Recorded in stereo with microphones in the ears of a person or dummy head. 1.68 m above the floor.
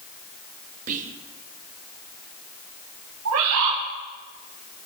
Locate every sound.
0.9 s whispering: 40° right (ahead or behind), 1.2 m
3.2 s a bird: 80° right, 6.5 m